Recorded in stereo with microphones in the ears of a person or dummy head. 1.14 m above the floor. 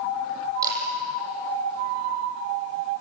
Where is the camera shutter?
15° right (ahead or behind), 7.5 m.